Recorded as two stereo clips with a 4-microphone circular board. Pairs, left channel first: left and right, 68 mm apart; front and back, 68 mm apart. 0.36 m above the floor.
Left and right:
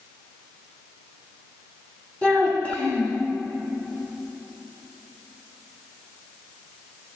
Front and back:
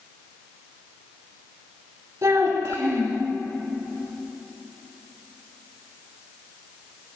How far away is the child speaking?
About 1.2 m.